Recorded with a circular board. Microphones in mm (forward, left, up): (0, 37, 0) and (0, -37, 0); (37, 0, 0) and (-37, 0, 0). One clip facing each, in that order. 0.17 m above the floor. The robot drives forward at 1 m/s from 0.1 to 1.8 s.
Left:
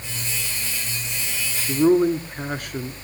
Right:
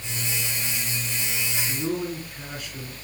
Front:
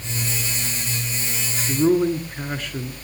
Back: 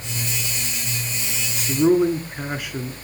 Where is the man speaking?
100° left, 2.0 m.